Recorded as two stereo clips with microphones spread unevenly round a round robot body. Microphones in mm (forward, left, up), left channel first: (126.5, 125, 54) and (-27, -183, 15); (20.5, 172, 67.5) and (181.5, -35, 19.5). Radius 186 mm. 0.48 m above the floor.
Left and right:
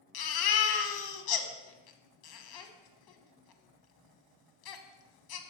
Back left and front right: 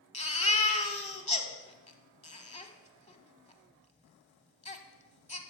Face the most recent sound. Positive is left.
turn(degrees=60)